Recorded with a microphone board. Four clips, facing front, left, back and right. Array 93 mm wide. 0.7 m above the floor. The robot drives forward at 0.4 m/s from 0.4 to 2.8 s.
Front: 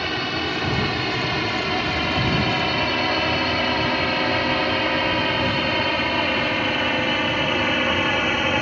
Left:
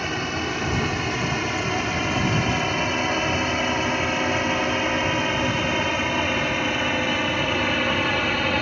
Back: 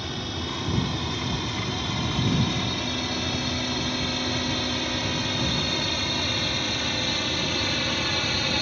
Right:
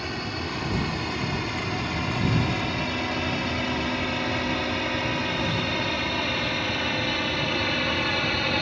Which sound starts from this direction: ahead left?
A drone, at 0.0 s.